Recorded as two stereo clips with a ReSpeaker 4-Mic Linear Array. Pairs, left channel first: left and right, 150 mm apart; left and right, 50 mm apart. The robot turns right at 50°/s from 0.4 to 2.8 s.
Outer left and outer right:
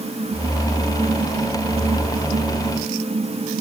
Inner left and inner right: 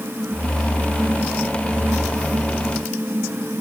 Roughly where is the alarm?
I don't hear an alarm.